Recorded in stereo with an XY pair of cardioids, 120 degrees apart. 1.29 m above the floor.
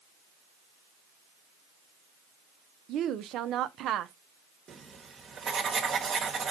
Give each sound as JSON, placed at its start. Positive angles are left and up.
{"t": 2.9, "sound": "a woman speaking", "azimuth_deg": -65, "distance_m": 0.7}
{"t": 4.7, "sound": "writing", "azimuth_deg": -45, "distance_m": 1.2}